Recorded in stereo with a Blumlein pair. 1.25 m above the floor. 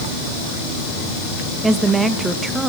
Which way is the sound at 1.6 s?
10° right.